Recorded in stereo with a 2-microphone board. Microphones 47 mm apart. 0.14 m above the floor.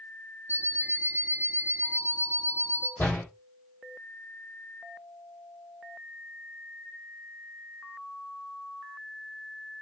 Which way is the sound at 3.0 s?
50° left (ahead or behind).